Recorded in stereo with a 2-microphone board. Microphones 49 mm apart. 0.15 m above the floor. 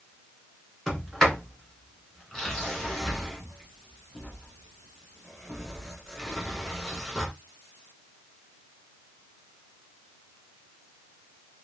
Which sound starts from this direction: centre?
A sliding door, at 0.9 s.